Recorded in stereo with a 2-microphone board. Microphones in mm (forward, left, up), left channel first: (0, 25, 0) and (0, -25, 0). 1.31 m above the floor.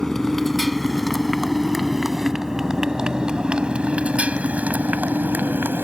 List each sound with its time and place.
0.0 s a motorcycle: 5° left (ahead or behind); by 5.9 s 45° right (ahead or behind)